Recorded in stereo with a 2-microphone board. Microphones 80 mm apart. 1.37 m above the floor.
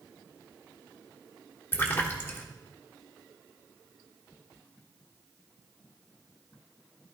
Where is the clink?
No clink in this recording.